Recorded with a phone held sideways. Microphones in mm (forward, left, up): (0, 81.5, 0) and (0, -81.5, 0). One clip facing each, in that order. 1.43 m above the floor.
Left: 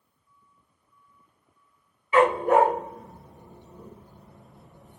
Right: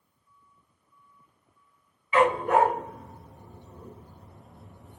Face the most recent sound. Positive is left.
turn(degrees=-5)  # may be behind; listen again after turning